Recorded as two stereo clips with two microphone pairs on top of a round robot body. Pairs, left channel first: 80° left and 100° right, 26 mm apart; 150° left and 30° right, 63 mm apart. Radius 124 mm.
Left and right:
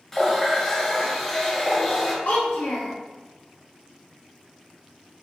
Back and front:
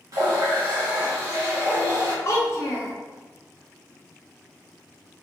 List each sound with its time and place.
0.1 s a running tap: straight ahead, 0.7 m
2.2 s a child speaking: 95° left, 0.5 m